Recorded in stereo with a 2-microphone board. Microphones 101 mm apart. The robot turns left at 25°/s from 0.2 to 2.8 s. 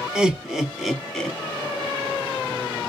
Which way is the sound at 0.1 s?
10° right (ahead or behind).